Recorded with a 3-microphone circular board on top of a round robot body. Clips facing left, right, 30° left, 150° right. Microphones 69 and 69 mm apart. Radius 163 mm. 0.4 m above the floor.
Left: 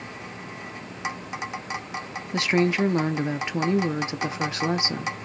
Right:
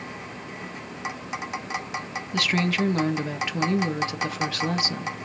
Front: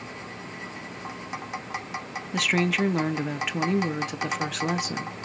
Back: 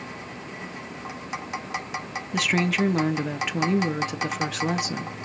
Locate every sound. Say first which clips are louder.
2.3 s a woman speaking: left 3 dB, back 1 dB; 120° left, 0.8 m